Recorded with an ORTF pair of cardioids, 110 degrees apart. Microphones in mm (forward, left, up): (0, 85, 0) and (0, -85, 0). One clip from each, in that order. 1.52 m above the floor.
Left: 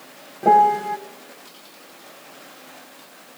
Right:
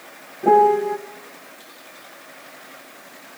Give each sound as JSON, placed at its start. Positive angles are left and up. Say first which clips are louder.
{"t": 0.4, "sound": "a piano", "louder": "even", "azimuth_deg": 30, "distance_m": 1.4}